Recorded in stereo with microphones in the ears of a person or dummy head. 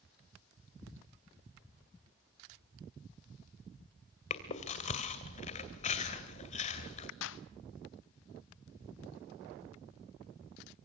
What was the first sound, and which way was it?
Chewing, 35° left (ahead or behind).